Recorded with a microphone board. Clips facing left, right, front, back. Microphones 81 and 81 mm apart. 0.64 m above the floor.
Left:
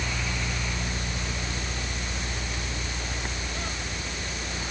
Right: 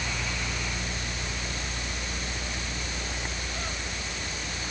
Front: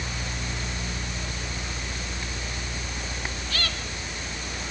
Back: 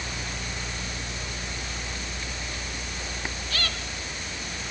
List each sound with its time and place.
Only background noise.